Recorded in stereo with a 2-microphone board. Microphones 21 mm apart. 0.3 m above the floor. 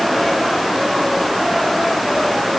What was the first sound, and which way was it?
Only background noise.